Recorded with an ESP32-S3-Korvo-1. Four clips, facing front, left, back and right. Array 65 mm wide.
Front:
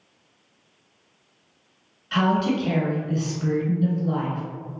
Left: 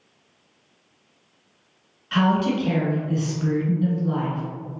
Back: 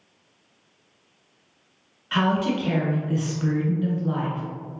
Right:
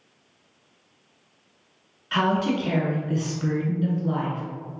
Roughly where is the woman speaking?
Behind.